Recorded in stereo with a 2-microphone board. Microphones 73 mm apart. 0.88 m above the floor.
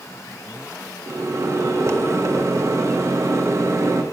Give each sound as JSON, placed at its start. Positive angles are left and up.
{"t": 1.1, "sound": "a microwave", "side_deg": -40, "distance_m": 0.9}